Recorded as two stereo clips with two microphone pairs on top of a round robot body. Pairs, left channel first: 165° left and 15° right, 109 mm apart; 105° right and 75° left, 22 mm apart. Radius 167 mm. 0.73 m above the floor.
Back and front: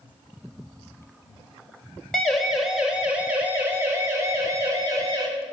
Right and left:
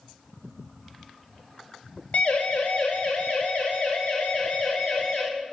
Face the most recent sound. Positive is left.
turn(degrees=-70)